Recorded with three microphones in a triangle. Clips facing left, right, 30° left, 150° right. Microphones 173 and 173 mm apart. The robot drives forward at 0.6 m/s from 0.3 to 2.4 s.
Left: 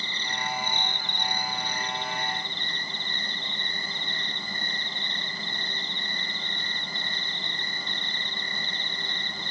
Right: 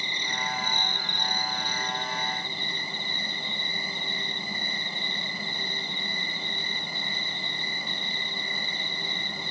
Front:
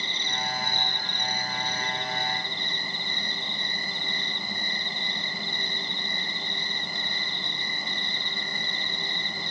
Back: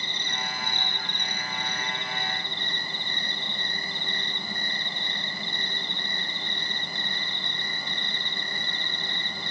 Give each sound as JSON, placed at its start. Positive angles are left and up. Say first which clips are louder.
{"t": 0.0, "sound": "an insect", "louder": "even, front 2 dB", "azimuth_deg": -165, "distance_m": 2.0}